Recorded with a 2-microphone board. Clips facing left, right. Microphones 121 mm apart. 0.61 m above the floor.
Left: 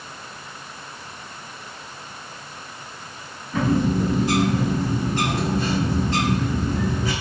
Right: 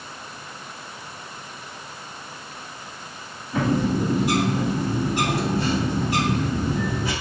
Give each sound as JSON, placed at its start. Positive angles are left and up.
{"t": 3.5, "sound": "a bird", "side_deg": -15, "distance_m": 1.9}